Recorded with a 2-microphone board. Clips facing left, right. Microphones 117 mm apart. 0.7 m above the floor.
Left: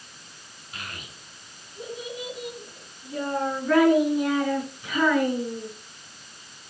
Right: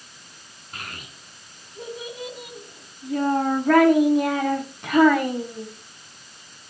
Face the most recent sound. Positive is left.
turn(degrees=-75)  # may be behind; listen again after turning